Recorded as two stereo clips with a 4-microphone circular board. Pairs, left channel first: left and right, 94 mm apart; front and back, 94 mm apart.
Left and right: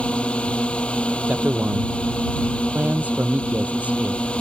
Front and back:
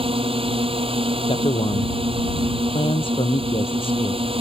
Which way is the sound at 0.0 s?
170° left.